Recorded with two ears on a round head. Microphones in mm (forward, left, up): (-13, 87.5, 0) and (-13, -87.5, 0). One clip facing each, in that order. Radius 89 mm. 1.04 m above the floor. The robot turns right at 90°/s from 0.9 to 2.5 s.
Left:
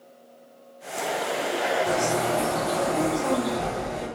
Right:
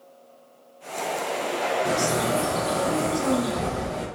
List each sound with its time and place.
1.9 s a bird: 105° right, 1.0 m; by 4.1 s 45° right, 1.0 m